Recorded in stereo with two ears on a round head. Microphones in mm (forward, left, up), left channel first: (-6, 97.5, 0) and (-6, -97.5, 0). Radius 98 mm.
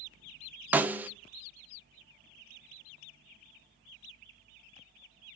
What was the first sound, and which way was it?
A snare drum, 10° right (ahead or behind).